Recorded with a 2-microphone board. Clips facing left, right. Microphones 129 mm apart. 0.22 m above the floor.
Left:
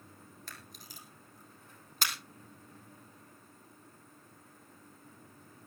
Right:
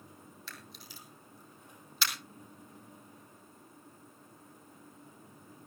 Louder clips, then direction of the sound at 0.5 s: Right 1 dB; 50° left (ahead or behind).